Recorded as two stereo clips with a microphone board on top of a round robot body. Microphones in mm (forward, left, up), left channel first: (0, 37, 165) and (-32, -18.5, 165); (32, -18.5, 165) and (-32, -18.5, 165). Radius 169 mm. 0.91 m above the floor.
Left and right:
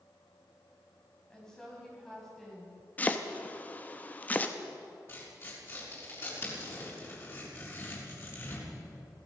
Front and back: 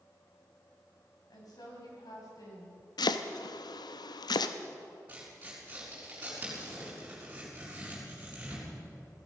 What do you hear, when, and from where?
1.3 s a woman speaking: 20° right, 6 m; by 2.8 s 30° right, 6 m
3.0 s chopping: 10° right, 0.8 m
5.1 s tearing paper: 110° left, 7 m